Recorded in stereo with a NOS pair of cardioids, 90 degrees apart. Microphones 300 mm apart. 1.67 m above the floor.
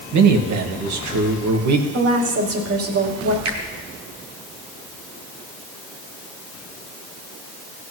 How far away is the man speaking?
About 1.7 m.